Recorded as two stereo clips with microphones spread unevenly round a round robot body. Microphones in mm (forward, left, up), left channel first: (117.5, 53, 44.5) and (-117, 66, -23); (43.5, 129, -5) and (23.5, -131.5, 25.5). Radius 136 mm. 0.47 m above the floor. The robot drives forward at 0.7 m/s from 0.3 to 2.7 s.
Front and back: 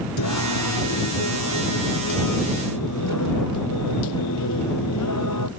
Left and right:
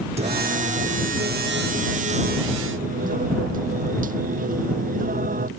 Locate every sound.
0.2 s singing: 30° right; by 5.5 s 35° right